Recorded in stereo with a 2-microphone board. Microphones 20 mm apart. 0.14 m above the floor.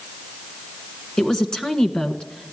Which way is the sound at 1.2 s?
35° left (ahead or behind).